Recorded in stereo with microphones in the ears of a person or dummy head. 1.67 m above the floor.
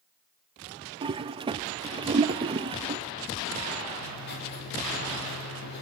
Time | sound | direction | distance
1.0 | a toilet flushing | 25° right (ahead or behind) | 0.7 m
4.0 | writing | 55° left (ahead or behind) | 10 m